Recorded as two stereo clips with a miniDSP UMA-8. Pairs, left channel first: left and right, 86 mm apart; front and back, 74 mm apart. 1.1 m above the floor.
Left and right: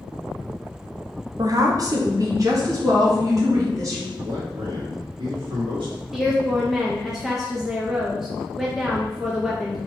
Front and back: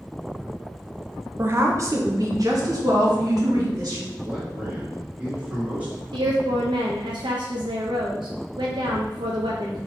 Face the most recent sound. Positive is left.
turn(degrees=180)